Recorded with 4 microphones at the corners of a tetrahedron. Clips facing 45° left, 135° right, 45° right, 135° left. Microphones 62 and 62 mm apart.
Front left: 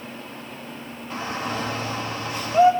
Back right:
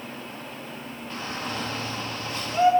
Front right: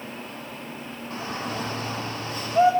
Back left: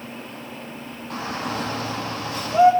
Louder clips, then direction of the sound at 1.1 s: Front left 5 dB, back left 4 dB; 125° left.